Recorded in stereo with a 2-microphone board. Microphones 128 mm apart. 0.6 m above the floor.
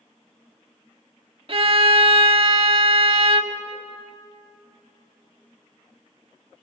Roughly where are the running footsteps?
I don't hear running footsteps.